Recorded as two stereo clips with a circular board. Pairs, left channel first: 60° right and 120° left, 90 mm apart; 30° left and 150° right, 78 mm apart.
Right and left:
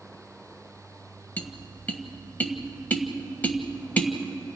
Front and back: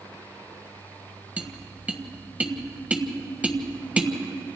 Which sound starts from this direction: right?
Tapping, at 1.4 s.